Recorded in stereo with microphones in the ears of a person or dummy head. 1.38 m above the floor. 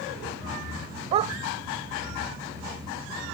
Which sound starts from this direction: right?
A dog barking, at 1.1 s.